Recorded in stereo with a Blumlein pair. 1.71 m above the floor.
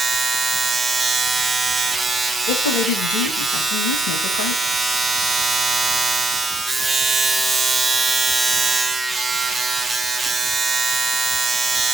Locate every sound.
0.0 s a machine running: 10° right, 0.8 m
2.5 s a woman speaking: 55° left, 2.5 m